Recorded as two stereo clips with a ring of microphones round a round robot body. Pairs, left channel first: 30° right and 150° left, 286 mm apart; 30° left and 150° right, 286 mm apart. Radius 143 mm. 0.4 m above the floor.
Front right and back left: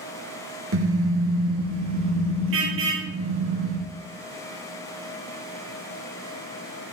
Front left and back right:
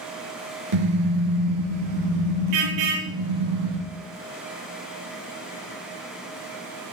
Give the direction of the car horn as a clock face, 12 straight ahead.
5 o'clock.